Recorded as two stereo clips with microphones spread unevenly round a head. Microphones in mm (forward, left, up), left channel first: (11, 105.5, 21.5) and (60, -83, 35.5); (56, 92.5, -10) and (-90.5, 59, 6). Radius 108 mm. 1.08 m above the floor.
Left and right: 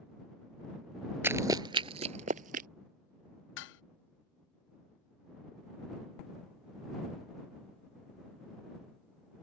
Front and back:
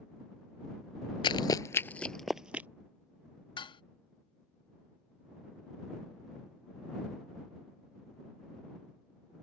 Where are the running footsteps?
15° right; by 2.7 s 95° right.